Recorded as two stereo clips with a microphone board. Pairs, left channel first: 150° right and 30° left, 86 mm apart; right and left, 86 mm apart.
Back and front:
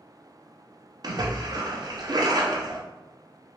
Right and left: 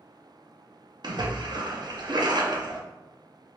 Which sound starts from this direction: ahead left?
A splash, at 1.0 s.